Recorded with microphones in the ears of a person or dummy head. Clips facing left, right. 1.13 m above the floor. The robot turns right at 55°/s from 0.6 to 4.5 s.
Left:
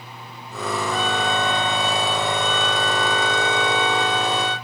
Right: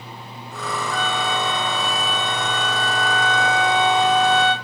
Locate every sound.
0.9 s a flute: 10° left, 1.4 m; by 4.5 s 150° right, 1.4 m